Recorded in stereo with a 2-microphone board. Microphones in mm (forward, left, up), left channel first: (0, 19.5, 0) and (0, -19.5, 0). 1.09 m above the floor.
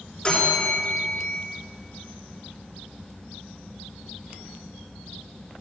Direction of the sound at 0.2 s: 20° left (ahead or behind).